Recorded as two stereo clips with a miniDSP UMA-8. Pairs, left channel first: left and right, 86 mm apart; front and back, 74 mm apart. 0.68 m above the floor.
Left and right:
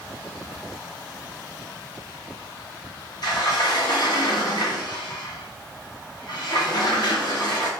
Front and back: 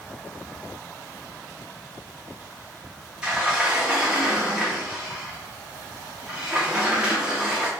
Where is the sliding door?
105° left, 0.7 m.